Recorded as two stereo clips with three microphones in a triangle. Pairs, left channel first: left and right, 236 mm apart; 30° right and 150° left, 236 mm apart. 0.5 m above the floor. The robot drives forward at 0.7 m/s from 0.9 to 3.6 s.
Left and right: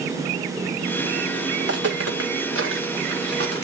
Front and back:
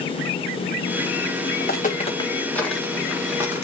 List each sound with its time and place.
1.6 s footsteps: 80° right, 1.8 m; by 3.6 s 135° right, 3 m